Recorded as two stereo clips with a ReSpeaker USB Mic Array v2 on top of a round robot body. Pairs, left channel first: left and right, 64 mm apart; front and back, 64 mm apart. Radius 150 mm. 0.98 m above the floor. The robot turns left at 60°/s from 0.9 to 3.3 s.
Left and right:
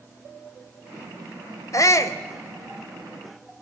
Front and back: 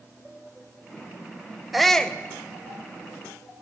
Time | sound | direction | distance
1.7 | a shout | 95° left | 0.7 m